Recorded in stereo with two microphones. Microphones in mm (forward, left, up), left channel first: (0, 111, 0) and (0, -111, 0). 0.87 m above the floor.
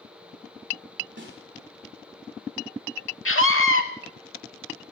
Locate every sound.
1.2 s a snare drum: 60° right (ahead or behind), 3.5 m
3.2 s a scream: 70° left (ahead or behind), 1.7 m